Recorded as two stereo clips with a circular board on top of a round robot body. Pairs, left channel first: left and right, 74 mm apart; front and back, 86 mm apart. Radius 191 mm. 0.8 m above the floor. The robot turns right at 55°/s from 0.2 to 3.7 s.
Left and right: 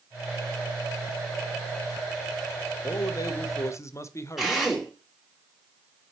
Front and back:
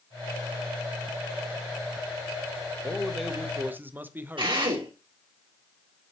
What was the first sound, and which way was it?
A man speaking, 70° left.